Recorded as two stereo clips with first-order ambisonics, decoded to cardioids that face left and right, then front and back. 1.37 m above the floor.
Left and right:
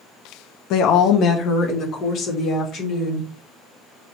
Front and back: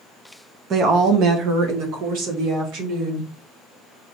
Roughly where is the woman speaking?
Behind left.